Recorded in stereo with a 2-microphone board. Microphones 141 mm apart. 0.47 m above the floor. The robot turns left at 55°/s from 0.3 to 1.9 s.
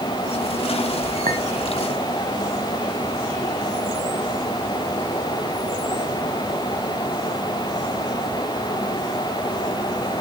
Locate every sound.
1.3 s a clink: 75° right (ahead or behind), 2.5 m; by 1.4 s 80° right, 2.5 m